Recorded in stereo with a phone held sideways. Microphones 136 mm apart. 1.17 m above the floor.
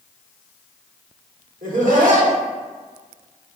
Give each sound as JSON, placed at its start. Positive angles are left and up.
{"t": 1.6, "sound": "laughter", "side_deg": -75, "distance_m": 1.3}